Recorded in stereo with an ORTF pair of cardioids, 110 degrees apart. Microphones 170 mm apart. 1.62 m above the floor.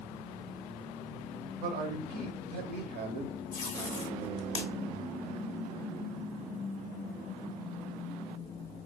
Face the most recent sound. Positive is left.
turn(degrees=45)